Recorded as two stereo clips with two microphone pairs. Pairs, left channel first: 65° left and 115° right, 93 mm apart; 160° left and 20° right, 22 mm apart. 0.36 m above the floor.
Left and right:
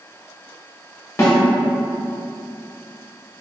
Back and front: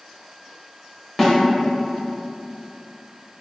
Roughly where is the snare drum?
Left.